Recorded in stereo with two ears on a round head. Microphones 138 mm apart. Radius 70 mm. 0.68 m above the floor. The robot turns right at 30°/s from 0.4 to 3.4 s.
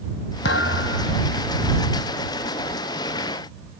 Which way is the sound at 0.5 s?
75° left (ahead or behind).